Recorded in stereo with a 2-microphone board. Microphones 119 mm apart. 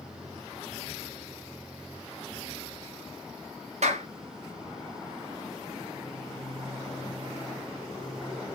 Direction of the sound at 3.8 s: 70° right (ahead or behind).